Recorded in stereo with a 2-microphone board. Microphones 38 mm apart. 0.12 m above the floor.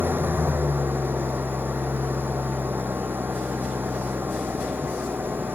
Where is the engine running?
70° right (ahead or behind).